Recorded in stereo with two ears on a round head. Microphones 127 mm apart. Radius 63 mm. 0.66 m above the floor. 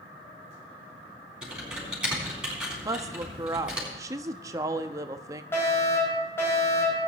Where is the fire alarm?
15° left (ahead or behind), 6 m.